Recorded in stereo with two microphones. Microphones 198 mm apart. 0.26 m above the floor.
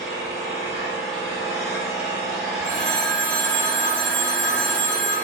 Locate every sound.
0.0 s an engine running: 70° left (ahead or behind), 1.8 m
2.6 s a phone ringing: 65° left (ahead or behind), 1.9 m